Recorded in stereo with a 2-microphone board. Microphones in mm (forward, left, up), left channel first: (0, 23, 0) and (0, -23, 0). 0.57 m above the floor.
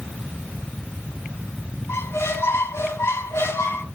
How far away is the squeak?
About 1.1 m.